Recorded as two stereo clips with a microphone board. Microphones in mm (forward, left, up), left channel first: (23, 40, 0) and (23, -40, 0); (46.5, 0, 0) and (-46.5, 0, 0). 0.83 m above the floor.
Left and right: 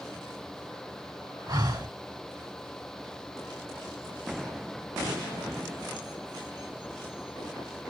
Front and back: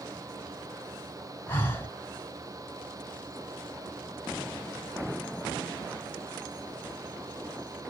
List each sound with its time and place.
1.5 s breathing: 65° right, 1.5 m